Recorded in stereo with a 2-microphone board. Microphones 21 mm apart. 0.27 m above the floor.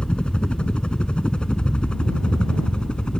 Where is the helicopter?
60° left (ahead or behind).